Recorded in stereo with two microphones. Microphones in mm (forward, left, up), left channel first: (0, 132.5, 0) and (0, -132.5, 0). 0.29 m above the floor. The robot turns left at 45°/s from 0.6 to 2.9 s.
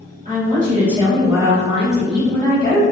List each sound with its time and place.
0.2 s a woman speaking: 120° right, 1.7 m; by 2.8 s 140° left, 1.7 m